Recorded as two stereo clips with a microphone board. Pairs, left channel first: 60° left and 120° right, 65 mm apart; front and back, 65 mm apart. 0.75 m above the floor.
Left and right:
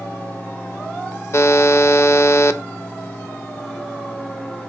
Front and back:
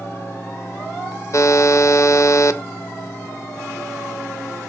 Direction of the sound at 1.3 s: 25° left.